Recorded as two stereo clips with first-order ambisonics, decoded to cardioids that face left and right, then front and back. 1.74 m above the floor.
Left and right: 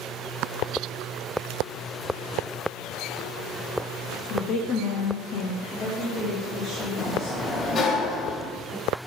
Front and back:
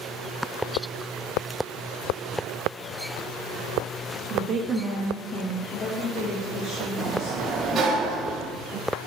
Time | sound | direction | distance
4.3 | a woman speaking | 145° left | 0.6 m
7.0 | a sliding door | 130° left | 0.6 m